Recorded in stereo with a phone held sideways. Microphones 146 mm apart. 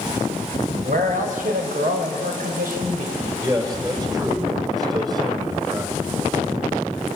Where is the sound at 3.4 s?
25° right (ahead or behind), 3.5 m.